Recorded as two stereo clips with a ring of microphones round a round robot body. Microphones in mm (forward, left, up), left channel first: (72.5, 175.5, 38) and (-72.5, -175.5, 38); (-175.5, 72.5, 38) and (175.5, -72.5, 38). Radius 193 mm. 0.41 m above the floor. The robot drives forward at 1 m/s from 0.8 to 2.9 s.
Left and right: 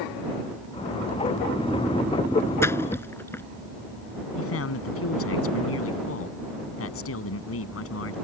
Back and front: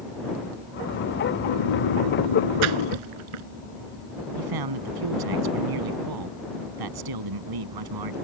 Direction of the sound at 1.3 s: 160° left.